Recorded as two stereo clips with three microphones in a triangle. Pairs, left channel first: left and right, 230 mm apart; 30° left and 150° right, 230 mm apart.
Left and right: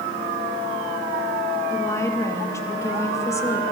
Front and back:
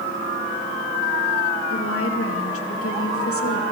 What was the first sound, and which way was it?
A woman speaking, 15° left.